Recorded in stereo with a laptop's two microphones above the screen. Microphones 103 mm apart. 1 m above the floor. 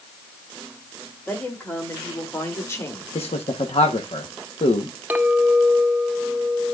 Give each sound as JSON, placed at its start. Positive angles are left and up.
{"t": 1.3, "sound": "a woman speaking", "side_deg": 20, "distance_m": 3.0}
{"t": 3.1, "sound": "a man speaking", "side_deg": 80, "distance_m": 1.0}
{"t": 5.1, "sound": "a clink", "side_deg": -15, "distance_m": 0.5}